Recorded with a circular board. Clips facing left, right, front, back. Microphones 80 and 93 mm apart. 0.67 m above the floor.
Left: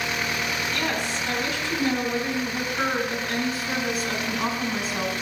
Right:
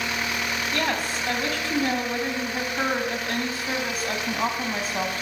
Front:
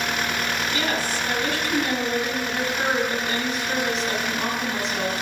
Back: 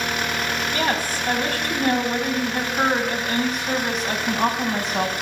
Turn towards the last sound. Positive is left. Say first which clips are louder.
# right 1 dB, back 4 dB
turn(degrees=-135)